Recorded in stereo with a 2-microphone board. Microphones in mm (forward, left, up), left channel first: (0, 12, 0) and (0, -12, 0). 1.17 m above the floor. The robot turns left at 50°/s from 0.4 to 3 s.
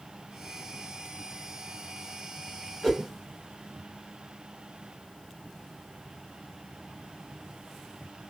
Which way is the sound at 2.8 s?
10° left (ahead or behind).